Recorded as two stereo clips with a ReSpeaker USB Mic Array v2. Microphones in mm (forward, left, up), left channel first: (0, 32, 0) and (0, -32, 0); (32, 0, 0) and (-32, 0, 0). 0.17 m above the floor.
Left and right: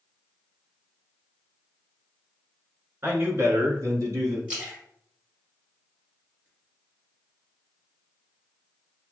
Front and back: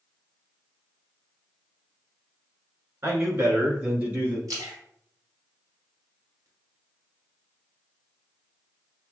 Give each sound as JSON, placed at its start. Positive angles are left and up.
{"t": 3.0, "sound": "a man speaking", "azimuth_deg": -140, "distance_m": 1.8}
{"t": 4.5, "sound": "a splash", "azimuth_deg": -160, "distance_m": 1.8}